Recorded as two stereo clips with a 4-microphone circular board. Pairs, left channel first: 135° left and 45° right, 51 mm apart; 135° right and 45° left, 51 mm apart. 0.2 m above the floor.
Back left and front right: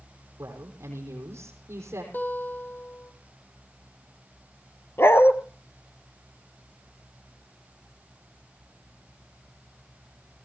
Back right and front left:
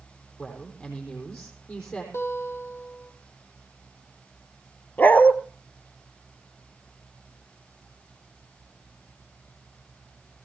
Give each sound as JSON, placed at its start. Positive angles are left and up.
{"t": 0.4, "sound": "a woman speaking", "azimuth_deg": -70, "distance_m": 6.5}
{"t": 2.1, "sound": "a guitar", "azimuth_deg": -175, "distance_m": 3.5}
{"t": 5.0, "sound": "a dog barking", "azimuth_deg": 170, "distance_m": 1.0}